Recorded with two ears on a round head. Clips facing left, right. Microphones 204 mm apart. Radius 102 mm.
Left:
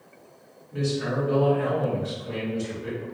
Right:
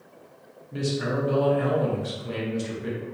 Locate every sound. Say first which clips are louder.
0.7 s a man speaking: even; 55° right (ahead or behind), 1.1 m